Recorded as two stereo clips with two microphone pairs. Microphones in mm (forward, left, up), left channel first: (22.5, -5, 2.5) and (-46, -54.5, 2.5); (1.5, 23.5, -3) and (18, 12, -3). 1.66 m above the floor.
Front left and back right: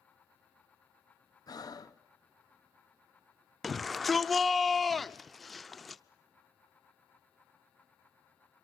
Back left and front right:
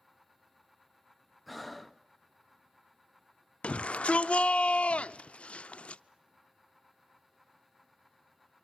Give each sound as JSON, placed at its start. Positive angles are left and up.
{"t": 1.5, "sound": "breathing", "azimuth_deg": 55, "distance_m": 0.6}
{"t": 3.6, "sound": "a shout", "azimuth_deg": 130, "distance_m": 0.5}